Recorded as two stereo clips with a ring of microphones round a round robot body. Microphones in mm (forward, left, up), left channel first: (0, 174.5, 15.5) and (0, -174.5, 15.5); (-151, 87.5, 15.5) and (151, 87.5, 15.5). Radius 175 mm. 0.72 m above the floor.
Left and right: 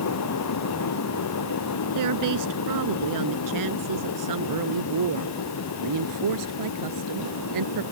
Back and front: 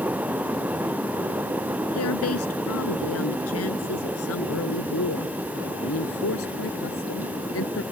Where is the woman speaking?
130° right; by 7.8 s 125° right.